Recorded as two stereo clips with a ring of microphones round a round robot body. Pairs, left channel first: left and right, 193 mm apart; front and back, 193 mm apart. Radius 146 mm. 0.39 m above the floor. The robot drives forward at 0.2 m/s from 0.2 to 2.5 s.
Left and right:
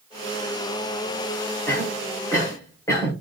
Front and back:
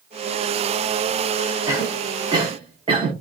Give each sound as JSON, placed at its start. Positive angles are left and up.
{"t": 1.7, "sound": "a cough", "azimuth_deg": 135, "distance_m": 0.8}